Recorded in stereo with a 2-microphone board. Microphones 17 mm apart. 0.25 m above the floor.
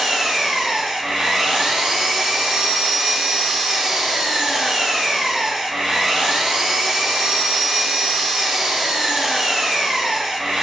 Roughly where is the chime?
I don't hear a chime.